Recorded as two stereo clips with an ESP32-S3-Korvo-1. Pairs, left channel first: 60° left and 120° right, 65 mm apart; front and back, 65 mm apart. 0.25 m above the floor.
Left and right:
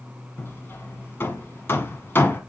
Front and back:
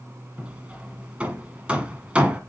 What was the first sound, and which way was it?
Hammering, 110° left.